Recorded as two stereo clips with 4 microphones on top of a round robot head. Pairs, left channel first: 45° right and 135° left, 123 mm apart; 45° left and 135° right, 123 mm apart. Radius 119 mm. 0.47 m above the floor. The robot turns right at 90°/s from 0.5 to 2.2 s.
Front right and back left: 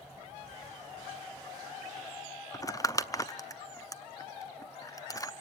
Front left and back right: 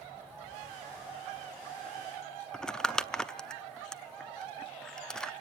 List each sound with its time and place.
2.5 s crumpling: 35° right, 0.8 m